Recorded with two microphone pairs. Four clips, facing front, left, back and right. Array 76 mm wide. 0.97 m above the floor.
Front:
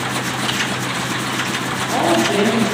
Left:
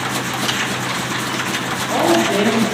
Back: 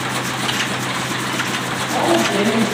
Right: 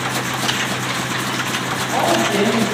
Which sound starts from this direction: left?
A woman speaking, at 1.7 s.